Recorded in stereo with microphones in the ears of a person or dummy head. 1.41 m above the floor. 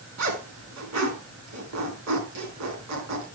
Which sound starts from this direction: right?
A zipper, at 0.2 s.